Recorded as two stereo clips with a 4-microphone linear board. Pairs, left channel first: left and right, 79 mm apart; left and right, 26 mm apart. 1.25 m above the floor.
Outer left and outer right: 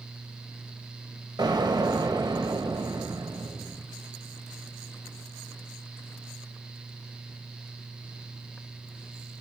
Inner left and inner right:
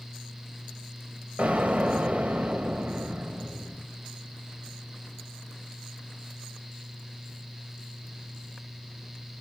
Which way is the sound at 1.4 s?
60° right (ahead or behind).